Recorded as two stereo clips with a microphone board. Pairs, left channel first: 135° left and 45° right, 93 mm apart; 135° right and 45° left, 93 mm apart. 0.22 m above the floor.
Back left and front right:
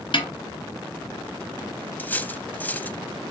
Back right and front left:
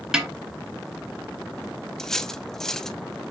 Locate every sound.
0.1 s a snare drum: 130° left, 2 m
2.0 s cutlery clinking: 150° left, 0.6 m